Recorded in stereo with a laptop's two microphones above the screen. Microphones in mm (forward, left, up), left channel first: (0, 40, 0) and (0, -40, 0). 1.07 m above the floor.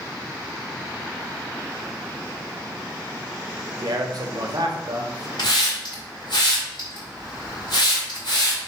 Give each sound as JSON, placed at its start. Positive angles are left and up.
{"t": 3.8, "sound": "a man speaking", "side_deg": -50, "distance_m": 0.6}
{"t": 5.4, "sound": "a hiss", "side_deg": 70, "distance_m": 2.0}